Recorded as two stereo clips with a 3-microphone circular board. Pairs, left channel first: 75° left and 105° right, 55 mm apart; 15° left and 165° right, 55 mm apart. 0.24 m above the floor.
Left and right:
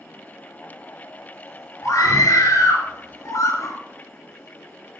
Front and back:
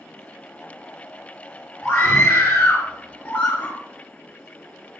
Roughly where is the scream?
Ahead left.